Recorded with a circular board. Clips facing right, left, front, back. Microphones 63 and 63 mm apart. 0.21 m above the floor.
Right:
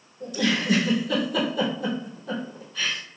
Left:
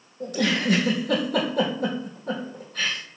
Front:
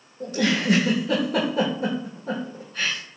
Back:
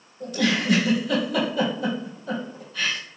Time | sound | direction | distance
0.2 | a giggle | 50° left | 2 m